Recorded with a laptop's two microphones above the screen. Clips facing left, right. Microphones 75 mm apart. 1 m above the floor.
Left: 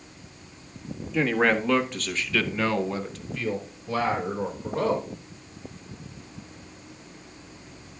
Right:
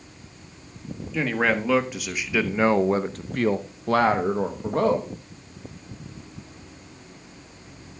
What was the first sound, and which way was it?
A man speaking, centre (ahead or behind).